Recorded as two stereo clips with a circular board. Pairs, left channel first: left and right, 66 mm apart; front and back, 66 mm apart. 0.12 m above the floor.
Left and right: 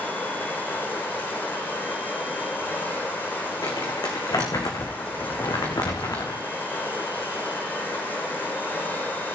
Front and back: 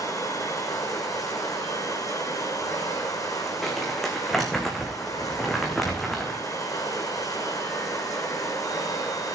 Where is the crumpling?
85° left, 2.5 m.